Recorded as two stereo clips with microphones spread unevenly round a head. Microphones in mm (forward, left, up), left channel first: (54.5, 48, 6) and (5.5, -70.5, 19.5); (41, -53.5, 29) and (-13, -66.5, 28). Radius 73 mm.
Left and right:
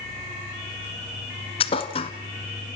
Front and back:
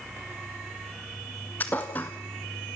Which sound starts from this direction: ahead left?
A thud, at 1.6 s.